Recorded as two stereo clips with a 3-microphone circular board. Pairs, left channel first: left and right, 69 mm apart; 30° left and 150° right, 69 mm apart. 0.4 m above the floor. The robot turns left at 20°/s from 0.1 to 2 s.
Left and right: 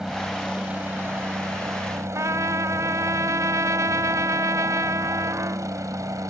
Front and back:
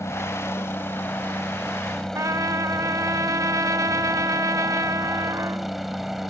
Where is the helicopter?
10° right; by 6.3 s 65° right.